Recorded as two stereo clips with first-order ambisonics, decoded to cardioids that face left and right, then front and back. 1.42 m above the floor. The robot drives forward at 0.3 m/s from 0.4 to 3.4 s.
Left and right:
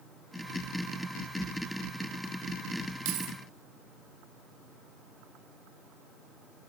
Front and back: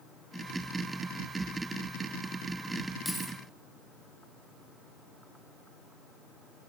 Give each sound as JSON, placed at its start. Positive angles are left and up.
{"t": 3.0, "sound": "keys jangling", "azimuth_deg": -90, "distance_m": 1.1}